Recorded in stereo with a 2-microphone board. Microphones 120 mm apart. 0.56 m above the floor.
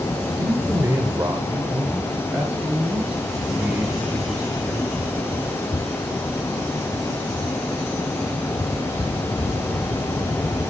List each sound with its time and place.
0.4 s a man speaking: 30° right (ahead or behind), 1.3 m; by 4.9 s 20° right (ahead or behind), 6.5 m